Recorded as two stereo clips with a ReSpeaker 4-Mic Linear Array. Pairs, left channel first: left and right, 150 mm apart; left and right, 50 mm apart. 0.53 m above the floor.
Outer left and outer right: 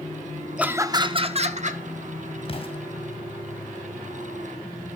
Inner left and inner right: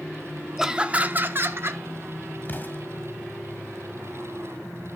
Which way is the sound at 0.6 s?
5° right (ahead or behind).